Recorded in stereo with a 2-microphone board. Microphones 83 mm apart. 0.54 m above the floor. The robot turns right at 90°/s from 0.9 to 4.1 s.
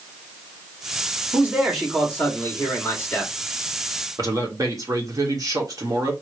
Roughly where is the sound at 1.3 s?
Ahead right.